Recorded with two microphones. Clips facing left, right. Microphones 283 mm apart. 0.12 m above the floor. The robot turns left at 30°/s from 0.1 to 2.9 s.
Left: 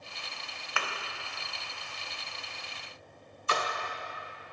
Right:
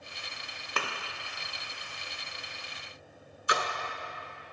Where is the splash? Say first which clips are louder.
Even; 15° right (ahead or behind), 0.5 m.